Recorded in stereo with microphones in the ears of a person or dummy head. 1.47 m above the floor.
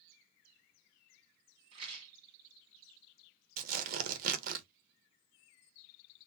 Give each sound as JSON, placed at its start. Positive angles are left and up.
{"t": 1.7, "sound": "a rattle", "side_deg": -30, "distance_m": 1.2}
{"t": 3.6, "sound": "tearing paper", "side_deg": -50, "distance_m": 0.7}